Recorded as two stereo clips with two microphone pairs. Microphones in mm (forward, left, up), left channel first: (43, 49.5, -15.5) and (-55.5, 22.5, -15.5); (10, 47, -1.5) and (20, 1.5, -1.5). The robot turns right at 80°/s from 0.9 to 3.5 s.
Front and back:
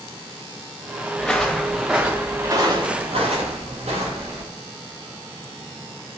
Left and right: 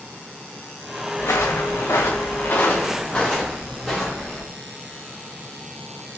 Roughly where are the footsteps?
Left.